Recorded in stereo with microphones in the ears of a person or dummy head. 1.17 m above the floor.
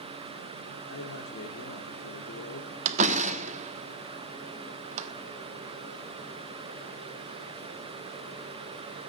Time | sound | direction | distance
0.9 | a man speaking | 75° left (ahead or behind) | 3.5 m
2.9 | a door slam | 45° right (ahead or behind) | 1.5 m